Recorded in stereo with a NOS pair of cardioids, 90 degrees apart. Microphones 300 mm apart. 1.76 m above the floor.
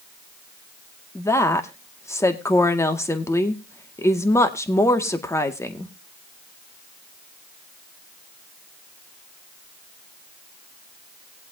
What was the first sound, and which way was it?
A woman speaking, 10° left.